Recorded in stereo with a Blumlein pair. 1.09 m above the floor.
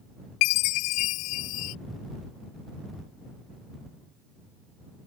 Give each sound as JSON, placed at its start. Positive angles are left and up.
{"t": 0.4, "sound": "a chime", "azimuth_deg": 40}